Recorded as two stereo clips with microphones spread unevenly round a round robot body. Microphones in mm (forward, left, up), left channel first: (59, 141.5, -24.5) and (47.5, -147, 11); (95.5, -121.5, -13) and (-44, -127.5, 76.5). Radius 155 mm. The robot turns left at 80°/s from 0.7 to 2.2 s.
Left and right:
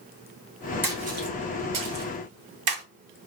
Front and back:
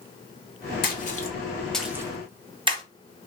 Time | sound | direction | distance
0.8 | a splash | 5° right | 1.0 m